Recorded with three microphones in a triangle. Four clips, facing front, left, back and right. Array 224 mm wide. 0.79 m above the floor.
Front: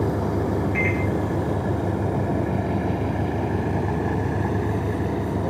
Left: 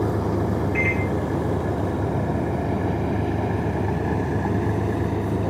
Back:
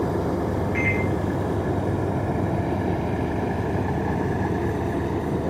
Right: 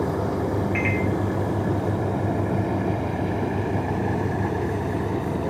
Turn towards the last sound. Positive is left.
turn(degrees=-90)